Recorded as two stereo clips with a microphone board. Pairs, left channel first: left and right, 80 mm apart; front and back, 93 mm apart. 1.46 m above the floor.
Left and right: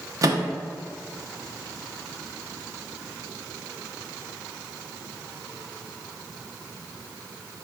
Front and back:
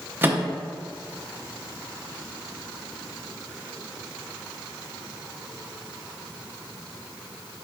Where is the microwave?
115° right, 0.6 m.